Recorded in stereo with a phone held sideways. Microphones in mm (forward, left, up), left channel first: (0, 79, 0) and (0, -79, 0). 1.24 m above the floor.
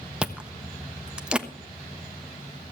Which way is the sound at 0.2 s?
5° right (ahead or behind).